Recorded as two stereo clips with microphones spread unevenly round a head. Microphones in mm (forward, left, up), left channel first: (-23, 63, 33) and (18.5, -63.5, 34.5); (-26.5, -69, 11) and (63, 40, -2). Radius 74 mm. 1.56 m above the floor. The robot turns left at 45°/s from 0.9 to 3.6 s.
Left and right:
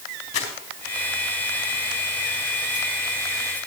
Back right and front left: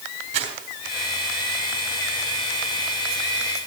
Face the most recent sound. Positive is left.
turn(degrees=-55)